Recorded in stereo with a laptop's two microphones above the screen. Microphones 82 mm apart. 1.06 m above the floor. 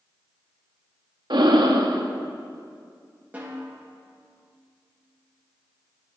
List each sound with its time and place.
1.3 s breathing: 65° right (ahead or behind), 0.7 m
3.3 s a snare drum: 20° right (ahead or behind), 1.7 m